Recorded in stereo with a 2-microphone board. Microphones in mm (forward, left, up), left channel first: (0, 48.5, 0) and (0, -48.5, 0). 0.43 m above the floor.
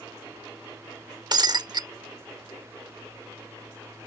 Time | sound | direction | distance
1.3 | breaking glass | 45° right (ahead or behind) | ?